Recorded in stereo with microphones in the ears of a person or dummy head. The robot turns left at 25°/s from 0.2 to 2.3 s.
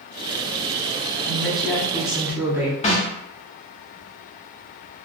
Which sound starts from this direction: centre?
A woman speaking, at 1.3 s.